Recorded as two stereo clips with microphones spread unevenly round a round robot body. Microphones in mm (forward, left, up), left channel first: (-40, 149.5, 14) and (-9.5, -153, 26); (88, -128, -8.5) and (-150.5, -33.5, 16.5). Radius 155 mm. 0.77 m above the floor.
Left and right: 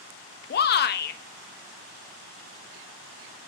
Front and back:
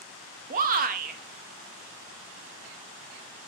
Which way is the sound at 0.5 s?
115° left.